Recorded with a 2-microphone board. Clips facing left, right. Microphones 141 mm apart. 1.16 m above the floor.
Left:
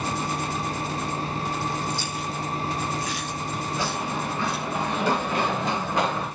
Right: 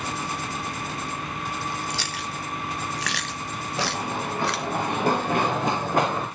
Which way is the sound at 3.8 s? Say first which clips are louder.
Right 3 dB; 55° right (ahead or behind).